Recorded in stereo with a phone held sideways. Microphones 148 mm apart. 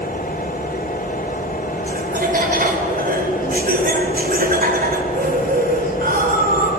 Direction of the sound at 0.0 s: 70° left (ahead or behind).